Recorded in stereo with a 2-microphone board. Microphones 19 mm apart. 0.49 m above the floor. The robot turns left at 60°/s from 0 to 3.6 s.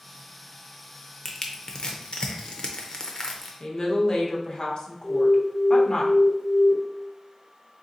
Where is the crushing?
20° left (ahead or behind), 0.7 m.